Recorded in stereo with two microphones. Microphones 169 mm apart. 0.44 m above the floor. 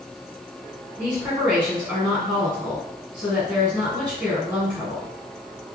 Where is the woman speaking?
15° right (ahead or behind), 1.6 m.